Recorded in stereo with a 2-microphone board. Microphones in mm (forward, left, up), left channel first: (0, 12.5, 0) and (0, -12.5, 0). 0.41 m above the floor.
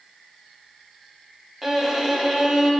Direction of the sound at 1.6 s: 15° right (ahead or behind).